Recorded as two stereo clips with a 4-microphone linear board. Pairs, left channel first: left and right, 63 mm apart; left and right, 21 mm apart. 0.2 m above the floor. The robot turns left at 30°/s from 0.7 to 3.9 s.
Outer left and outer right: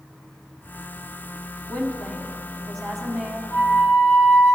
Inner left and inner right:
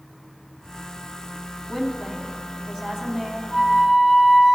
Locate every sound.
1.7 s a woman speaking: 40° left, 1.2 m; by 3.4 s 15° right, 1.2 m
3.5 s a flute: 35° left (ahead or behind), 2.0 m